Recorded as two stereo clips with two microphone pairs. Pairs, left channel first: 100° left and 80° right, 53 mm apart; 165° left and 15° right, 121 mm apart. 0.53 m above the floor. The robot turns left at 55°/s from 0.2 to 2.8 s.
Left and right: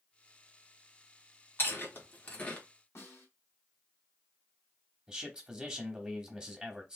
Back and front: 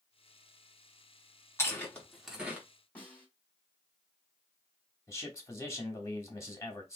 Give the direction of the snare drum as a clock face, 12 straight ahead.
9 o'clock.